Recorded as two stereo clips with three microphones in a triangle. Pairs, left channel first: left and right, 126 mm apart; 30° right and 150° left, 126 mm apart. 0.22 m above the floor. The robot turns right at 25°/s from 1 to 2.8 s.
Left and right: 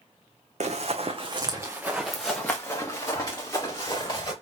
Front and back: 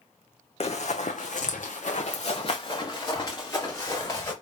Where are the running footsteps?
65° right, 0.7 m; by 4.3 s 35° left, 2 m.